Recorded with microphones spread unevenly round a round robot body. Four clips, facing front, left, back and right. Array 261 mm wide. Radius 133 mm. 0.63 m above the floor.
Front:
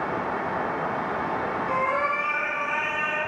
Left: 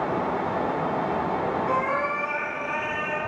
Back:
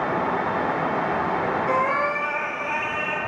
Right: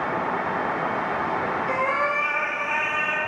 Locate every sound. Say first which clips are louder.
1.7 s a cat meowing: right 1 dB, back 1 dB; 175° right, 2.0 m; by 3.2 s 140° right, 3 m